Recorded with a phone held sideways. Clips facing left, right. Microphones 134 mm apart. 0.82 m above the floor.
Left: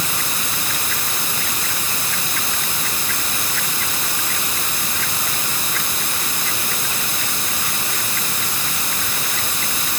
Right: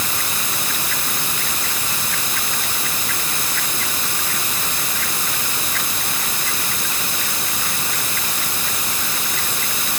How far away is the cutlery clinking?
I don't hear cutlery clinking.